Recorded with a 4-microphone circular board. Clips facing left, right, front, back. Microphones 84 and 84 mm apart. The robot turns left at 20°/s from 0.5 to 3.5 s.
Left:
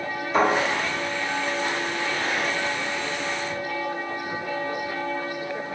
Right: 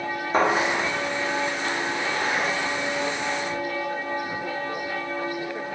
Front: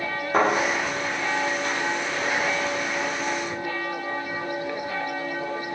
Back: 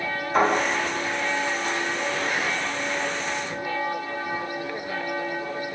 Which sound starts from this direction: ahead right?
A thud, at 0.3 s.